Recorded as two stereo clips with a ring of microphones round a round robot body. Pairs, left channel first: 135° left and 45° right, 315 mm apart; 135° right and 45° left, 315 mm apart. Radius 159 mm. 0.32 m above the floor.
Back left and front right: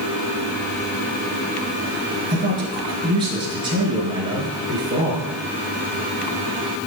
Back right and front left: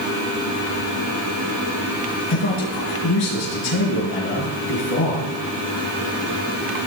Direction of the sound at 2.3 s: 120° right.